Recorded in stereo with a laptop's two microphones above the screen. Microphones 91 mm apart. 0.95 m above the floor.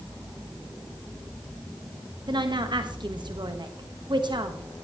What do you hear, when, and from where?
2.3 s a woman speaking: 55° right (ahead or behind), 1.2 m